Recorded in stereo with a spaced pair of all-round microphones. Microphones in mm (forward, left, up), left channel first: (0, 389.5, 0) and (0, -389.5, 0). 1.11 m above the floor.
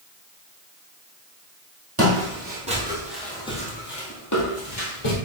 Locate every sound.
2.0 s footsteps: 20° right (ahead or behind), 1.5 m; by 5.2 s 35° left (ahead or behind), 1.3 m